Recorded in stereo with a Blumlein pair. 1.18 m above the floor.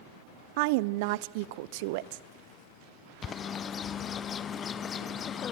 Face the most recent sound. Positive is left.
turn(degrees=25)